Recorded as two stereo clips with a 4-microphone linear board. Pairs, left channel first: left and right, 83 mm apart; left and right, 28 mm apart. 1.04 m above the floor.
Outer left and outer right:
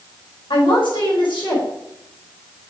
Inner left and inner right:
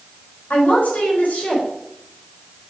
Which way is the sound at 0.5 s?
80° left.